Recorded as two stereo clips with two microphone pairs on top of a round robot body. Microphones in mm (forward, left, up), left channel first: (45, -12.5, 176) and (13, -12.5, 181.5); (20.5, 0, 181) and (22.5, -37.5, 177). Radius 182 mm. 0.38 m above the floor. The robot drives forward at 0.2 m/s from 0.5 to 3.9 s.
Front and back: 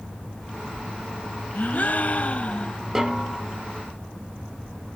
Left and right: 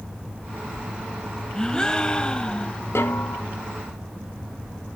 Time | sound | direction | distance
1.6 | a gasp | 15° left | 0.9 m
3.0 | a snare drum | 105° left | 1.4 m